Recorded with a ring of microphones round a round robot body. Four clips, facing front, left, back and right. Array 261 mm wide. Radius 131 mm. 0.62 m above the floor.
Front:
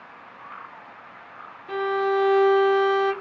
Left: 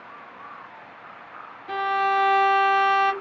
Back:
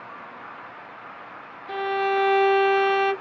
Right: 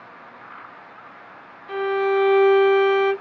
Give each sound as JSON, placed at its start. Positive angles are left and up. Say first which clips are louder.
{"t": 1.7, "sound": "a violin", "louder": "right 2 dB, front 1 dB", "azimuth_deg": 120, "distance_m": 1.3}